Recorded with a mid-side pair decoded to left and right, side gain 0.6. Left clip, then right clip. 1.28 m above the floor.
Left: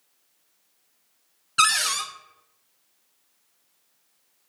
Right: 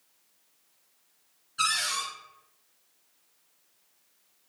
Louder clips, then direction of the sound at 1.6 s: Left 6 dB; 70° left.